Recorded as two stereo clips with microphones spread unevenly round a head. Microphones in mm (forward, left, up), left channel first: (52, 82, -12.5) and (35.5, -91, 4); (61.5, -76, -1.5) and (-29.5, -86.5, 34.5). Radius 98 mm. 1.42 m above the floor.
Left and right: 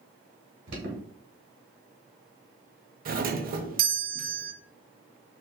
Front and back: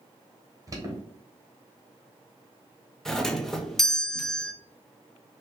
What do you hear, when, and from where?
0.7 s an alarm: 110° right, 1.6 m
3.0 s a doorbell: 65° right, 0.7 m